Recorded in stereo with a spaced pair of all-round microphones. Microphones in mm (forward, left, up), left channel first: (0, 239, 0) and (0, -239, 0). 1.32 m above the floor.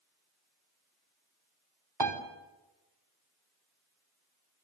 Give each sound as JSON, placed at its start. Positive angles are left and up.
{"t": 2.0, "sound": "a piano", "side_deg": -50, "distance_m": 3.0}